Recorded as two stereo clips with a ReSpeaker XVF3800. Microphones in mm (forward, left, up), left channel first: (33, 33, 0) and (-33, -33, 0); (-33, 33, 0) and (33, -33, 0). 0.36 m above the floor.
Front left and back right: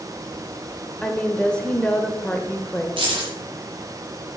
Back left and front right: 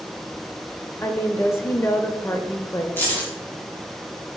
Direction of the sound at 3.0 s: 155° right.